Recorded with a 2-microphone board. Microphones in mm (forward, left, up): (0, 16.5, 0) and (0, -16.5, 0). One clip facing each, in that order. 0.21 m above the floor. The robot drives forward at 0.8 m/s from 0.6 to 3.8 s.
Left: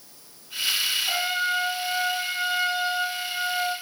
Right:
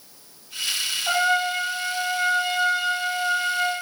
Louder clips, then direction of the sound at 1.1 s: Right 4 dB; 80° right.